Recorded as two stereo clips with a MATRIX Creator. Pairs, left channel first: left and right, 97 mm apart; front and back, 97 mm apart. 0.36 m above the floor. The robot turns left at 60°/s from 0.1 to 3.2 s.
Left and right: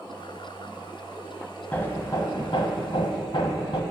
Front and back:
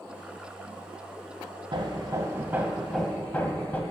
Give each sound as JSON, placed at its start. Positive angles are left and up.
{"t": 1.7, "sound": "hammering", "azimuth_deg": 160, "distance_m": 1.1}